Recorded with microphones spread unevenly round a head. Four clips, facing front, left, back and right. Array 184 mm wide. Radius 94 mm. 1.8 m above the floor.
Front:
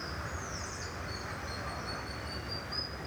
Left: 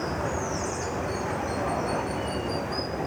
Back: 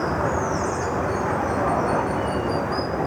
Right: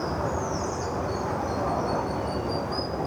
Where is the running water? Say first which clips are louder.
Right 1 dB, back 19 dB; 175° right.